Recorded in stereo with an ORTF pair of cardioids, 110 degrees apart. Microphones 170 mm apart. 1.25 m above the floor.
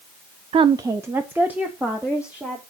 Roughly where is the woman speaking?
Ahead right.